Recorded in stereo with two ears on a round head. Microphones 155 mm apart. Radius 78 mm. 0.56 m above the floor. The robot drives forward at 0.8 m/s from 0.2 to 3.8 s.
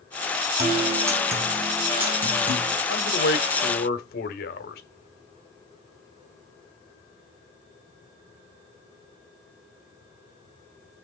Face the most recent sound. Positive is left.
turn(degrees=60)  # may be behind; listen again after turning